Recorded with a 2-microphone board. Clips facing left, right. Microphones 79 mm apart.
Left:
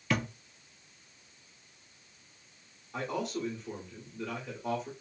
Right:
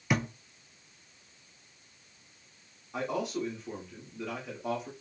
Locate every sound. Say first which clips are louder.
0.1 s a thud: right 1 dB; 15° right (ahead or behind), 0.6 m
2.9 s a man speaking: right 2 dB; 5° right (ahead or behind), 1.2 m